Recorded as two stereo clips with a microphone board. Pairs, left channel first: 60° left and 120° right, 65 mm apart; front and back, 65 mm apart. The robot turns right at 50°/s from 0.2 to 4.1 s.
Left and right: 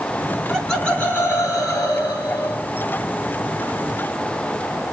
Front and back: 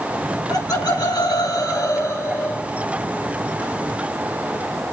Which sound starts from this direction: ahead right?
Laughter, at 0.2 s.